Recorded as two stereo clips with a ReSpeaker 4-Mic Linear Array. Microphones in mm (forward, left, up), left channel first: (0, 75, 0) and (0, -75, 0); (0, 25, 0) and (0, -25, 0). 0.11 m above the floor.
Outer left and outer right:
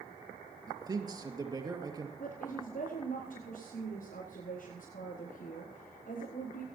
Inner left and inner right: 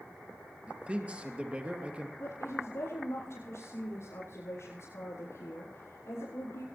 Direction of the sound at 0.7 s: 25° right (ahead or behind).